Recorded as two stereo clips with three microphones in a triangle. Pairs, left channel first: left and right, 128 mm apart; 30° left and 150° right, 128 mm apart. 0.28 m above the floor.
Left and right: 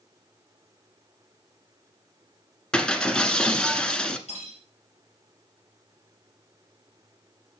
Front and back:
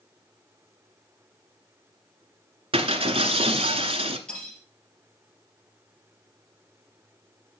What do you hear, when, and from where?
2.7 s breaking glass: 170° left, 1.0 m
4.3 s cutlery clinking: 110° left, 3.5 m